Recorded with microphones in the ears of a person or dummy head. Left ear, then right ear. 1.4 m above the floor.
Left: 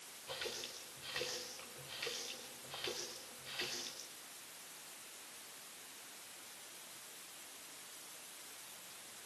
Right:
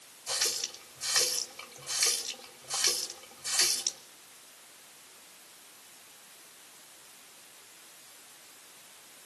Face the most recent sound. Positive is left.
turn(degrees=-55)  # may be behind; listen again after turning